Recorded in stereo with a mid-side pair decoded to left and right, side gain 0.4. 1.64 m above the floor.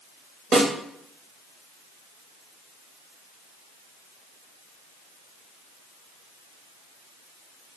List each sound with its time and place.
0.5 s a snare drum: 60° right, 0.8 m